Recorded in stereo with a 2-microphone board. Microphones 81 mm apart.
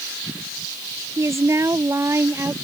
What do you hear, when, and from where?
1.2 s a woman speaking: 40° right (ahead or behind); by 2.5 s 35° right (ahead or behind)